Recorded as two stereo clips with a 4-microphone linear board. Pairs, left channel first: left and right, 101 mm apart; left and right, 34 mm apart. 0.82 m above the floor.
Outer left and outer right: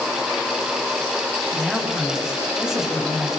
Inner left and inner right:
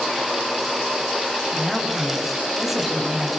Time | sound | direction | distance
1.5 | a woman speaking | 5° right (ahead or behind) | 4.5 m